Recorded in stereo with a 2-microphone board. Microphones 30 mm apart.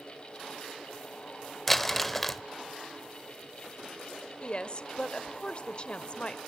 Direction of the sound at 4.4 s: 35° left (ahead or behind).